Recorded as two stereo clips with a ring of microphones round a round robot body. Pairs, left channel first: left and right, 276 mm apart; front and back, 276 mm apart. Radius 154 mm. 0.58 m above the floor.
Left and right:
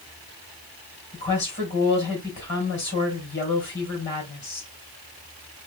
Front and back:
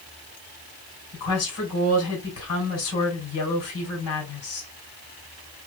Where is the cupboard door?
I don't hear a cupboard door.